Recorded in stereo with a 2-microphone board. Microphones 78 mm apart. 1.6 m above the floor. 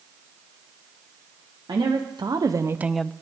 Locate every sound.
1.7 s a woman speaking: 75° right (ahead or behind), 1.3 m; by 3.1 s 15° left (ahead or behind), 0.5 m